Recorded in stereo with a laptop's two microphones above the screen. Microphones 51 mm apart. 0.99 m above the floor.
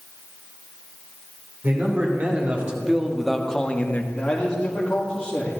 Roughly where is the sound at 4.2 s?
Centre.